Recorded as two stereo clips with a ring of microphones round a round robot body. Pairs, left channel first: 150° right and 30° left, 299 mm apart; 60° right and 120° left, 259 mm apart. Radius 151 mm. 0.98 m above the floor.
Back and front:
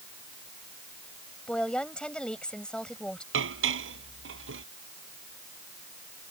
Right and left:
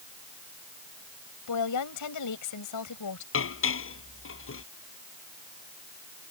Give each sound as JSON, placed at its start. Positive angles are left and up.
{"t": 1.5, "sound": "a woman speaking", "azimuth_deg": -65}
{"t": 3.3, "sound": "dishes clattering", "azimuth_deg": -20}